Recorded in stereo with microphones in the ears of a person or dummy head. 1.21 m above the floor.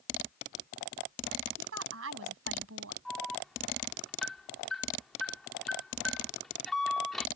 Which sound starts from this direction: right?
A woman speaking, at 1.6 s.